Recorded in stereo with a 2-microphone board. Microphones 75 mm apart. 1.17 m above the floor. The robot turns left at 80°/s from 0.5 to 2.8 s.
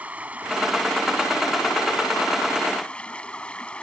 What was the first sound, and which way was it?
Running water, 160° right.